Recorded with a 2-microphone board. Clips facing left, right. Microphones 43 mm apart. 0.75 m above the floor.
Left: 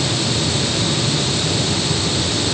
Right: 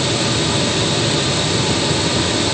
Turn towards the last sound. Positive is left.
No sound to turn to.